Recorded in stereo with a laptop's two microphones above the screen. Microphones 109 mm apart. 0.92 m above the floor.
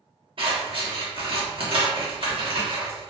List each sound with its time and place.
0.4 s scissors: 55° right (ahead or behind), 1.0 m